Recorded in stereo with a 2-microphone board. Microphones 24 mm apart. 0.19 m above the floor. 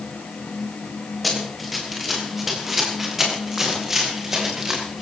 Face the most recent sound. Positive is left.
turn(degrees=-20)  # may be behind; listen again after turning